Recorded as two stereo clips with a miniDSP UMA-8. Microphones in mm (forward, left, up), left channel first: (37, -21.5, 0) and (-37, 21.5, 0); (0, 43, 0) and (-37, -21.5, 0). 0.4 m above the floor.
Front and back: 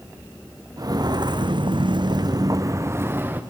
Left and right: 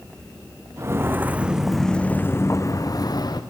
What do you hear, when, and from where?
0.8 s footsteps: 170° right, 1.6 m; by 3.4 s 85° left, 1.9 m